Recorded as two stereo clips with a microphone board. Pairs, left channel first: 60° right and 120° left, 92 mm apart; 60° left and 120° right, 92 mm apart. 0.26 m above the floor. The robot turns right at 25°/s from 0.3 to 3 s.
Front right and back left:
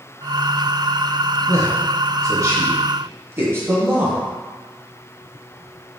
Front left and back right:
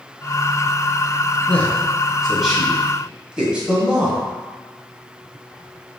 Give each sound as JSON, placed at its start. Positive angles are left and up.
{"t": 1.5, "sound": "a man speaking", "azimuth_deg": 125, "distance_m": 1.2}